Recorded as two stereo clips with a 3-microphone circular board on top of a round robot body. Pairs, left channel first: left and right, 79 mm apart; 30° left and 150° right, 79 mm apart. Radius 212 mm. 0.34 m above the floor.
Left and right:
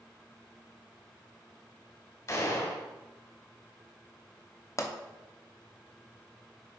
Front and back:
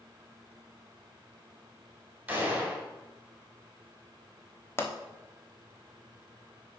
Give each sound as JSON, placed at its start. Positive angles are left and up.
{"t": 2.3, "sound": "a gunshot", "azimuth_deg": 135, "distance_m": 2.0}
{"t": 4.8, "sound": "a pop", "azimuth_deg": 70, "distance_m": 1.3}